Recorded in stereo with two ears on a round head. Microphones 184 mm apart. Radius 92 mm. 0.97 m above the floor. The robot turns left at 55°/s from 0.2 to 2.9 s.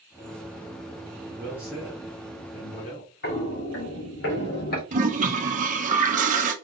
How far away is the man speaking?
About 2.5 m.